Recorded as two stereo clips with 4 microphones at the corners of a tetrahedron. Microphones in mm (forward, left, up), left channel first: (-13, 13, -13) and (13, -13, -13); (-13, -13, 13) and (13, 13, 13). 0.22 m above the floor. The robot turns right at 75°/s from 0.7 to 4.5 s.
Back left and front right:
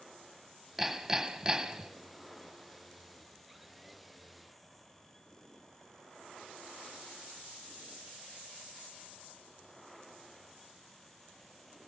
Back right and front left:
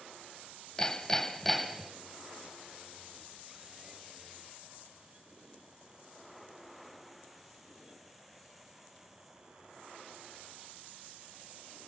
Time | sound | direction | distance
0.8 | hammering | 115° right | 1.2 m